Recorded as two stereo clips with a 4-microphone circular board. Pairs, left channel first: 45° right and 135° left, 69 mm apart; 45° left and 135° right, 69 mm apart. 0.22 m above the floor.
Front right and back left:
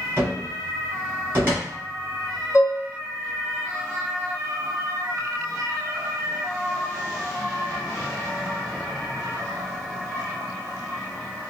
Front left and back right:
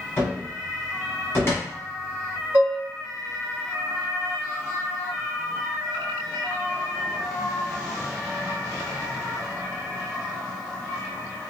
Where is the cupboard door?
85° left, 1.6 m.